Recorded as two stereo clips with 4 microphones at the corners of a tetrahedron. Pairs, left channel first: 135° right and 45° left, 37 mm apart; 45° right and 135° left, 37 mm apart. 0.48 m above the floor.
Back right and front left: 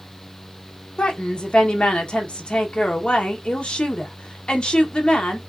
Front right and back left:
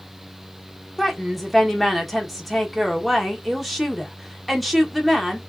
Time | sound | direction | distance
1.0 | a woman speaking | 135° right | 0.9 m